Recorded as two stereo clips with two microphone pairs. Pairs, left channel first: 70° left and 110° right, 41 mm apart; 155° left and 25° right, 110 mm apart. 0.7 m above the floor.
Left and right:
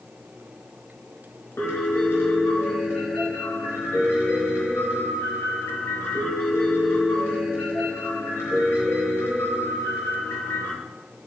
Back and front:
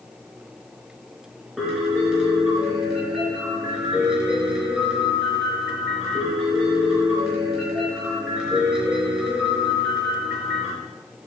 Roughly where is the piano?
Ahead left.